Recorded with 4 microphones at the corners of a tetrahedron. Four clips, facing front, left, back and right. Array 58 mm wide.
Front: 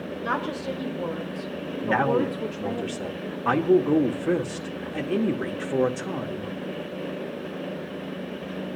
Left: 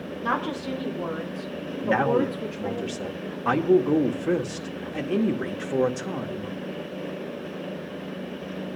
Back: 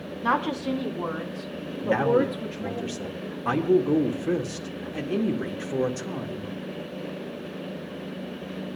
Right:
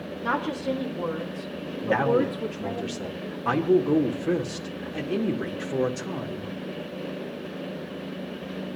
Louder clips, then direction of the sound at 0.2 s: Right 1 dB, back 4 dB; straight behind.